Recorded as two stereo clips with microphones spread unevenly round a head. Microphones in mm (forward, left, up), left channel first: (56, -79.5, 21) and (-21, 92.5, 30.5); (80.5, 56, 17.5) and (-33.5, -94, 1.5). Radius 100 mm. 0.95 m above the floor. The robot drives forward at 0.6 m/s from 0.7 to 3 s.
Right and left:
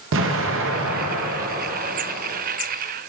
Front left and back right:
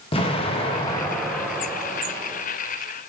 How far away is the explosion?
About 0.8 m.